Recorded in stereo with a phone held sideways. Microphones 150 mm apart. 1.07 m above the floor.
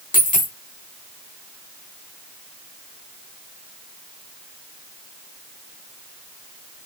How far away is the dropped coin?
About 4 m.